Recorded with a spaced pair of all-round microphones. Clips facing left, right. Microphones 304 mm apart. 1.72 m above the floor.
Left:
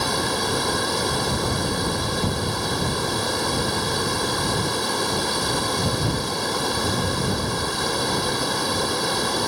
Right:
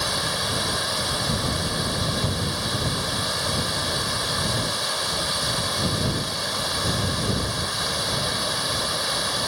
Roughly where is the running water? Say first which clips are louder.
Left 6 dB; left.